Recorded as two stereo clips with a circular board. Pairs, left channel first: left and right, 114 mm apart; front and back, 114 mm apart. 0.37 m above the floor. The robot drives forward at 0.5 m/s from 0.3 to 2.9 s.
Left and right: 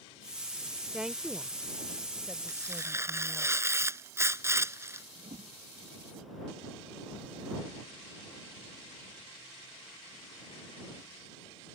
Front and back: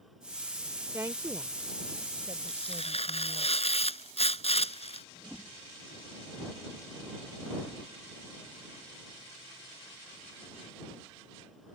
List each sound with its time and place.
0.9 s a woman speaking: 160° right; by 3.5 s 175° right
2.5 s tearing paper: 25° right
5.2 s a whoosh: 85° right